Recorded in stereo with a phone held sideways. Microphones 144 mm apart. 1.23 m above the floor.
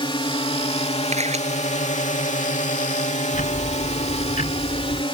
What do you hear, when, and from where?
0.0 s a drone: 35° left (ahead or behind); by 5.1 s 40° left (ahead or behind)
1.1 s a camera shutter: 50° right (ahead or behind)
3.3 s ticking: 70° left (ahead or behind)